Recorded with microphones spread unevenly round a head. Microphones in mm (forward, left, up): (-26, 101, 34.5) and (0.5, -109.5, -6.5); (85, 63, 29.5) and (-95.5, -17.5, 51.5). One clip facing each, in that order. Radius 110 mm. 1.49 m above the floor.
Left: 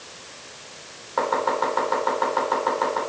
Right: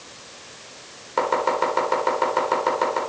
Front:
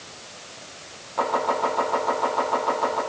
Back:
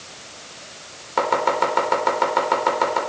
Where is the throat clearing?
I don't hear throat clearing.